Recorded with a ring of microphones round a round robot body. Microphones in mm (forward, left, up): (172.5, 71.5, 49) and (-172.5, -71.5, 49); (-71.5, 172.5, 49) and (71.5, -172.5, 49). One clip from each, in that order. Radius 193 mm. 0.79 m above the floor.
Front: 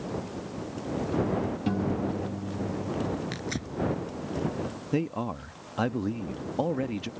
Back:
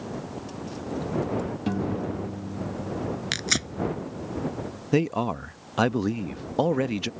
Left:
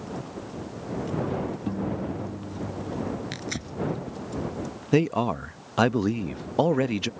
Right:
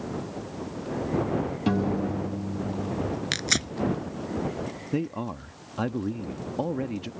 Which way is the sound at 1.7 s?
75° right.